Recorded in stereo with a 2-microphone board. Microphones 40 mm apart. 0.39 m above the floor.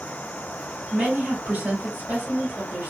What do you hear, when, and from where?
0.9 s a woman speaking: 50° right (ahead or behind), 2 m